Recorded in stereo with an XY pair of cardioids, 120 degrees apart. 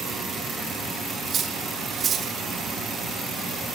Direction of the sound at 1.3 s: 45° right.